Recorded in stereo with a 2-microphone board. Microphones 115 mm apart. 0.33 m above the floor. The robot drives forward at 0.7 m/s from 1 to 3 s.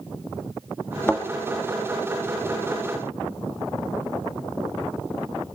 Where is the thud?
20° left (ahead or behind), 1.5 m.